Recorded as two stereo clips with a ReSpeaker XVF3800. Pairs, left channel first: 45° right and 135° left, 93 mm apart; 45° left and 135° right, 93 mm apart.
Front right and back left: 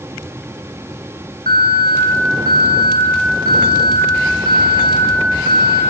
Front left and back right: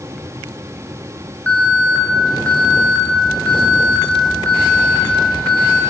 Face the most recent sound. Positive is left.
turn(degrees=-30)